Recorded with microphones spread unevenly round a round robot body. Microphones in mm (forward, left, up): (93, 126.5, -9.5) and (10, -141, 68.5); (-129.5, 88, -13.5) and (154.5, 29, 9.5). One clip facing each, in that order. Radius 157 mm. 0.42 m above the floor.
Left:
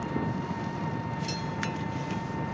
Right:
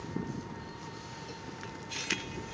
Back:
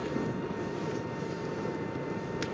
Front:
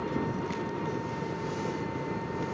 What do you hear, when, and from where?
0.0 s an engine running: 75° left